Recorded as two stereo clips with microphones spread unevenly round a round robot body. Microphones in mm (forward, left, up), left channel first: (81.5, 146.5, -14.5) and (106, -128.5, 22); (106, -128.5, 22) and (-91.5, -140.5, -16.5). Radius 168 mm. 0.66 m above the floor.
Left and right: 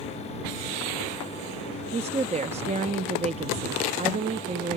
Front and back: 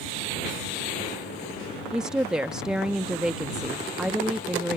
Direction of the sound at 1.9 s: 135° right.